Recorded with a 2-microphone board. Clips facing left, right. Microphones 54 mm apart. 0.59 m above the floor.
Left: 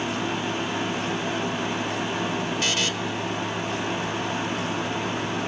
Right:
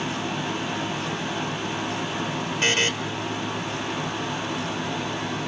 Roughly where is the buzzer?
Right.